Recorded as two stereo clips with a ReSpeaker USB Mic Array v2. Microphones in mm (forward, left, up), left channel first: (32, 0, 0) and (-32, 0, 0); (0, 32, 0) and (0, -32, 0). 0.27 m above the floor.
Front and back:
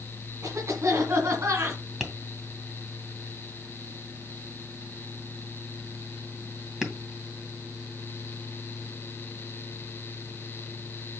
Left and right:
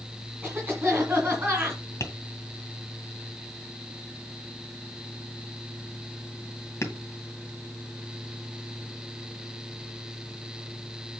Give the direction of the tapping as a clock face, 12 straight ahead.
9 o'clock.